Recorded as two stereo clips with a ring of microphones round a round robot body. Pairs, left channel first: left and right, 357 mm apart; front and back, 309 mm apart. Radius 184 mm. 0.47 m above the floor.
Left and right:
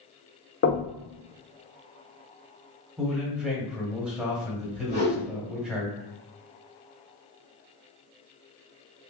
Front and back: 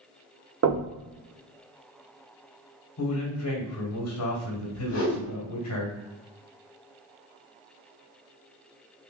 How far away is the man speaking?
About 1.3 m.